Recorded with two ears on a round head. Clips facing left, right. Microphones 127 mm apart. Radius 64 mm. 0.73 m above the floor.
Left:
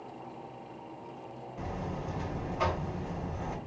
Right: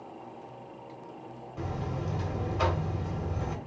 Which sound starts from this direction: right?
A buzzer, at 1.6 s.